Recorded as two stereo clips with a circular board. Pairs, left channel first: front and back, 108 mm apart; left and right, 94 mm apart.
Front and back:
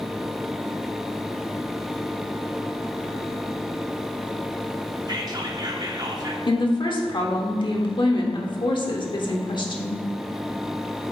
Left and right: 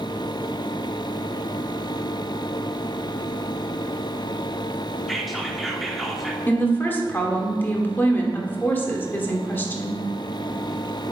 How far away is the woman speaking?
About 1.2 m.